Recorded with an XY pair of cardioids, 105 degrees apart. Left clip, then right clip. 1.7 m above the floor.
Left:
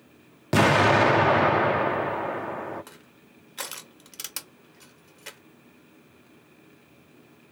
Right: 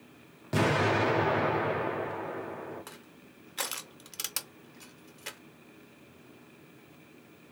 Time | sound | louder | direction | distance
0.5 | an explosion | left 8 dB | 65° left | 0.8 m
2.9 | crushing | even | 5° right | 1.4 m